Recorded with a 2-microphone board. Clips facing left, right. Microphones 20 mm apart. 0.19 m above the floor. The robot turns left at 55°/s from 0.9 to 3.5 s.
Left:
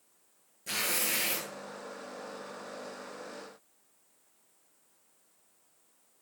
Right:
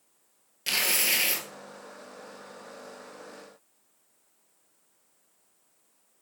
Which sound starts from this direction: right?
Tearing paper, at 0.7 s.